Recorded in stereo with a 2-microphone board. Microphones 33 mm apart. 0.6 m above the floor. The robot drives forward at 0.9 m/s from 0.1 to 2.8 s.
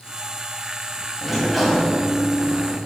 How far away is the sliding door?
About 1.7 m.